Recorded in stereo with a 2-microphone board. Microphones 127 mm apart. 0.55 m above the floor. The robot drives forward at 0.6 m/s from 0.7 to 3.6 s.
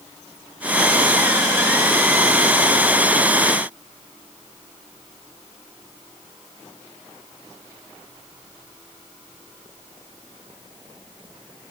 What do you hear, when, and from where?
Only background noise.